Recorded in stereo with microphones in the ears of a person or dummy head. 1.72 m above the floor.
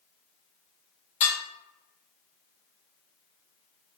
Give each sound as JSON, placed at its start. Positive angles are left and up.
{"t": 1.2, "sound": "dishes clattering", "side_deg": 40, "distance_m": 1.2}